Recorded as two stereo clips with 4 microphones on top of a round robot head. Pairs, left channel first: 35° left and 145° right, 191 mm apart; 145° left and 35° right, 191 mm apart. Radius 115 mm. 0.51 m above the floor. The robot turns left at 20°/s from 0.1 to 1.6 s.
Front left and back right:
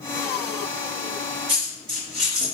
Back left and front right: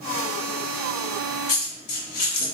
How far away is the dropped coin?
About 1.8 m.